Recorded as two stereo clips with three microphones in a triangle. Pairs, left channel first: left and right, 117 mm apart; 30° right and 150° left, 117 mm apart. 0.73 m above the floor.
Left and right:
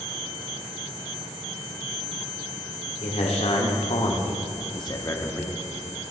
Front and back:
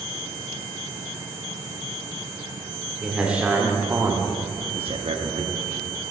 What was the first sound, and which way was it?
A man speaking, 65° left.